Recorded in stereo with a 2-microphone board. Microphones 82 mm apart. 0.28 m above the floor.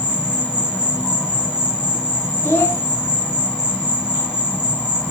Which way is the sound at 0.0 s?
15° left (ahead or behind).